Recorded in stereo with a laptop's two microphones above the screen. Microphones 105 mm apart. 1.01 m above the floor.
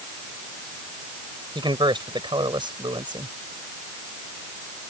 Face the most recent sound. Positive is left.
turn(degrees=-55)  # may be behind; listen again after turning